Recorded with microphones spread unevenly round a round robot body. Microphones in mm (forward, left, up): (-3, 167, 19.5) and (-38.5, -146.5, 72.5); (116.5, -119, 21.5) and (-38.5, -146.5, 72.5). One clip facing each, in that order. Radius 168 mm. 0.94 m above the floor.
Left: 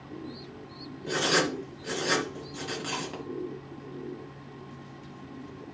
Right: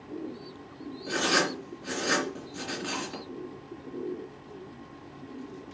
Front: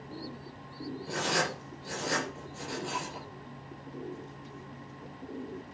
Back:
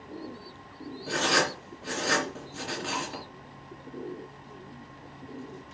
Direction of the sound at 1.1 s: 165° left.